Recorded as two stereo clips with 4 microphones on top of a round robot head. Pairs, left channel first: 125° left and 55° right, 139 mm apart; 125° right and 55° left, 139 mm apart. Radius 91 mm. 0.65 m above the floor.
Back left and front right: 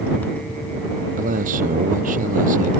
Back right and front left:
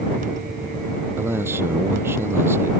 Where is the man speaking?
20° right.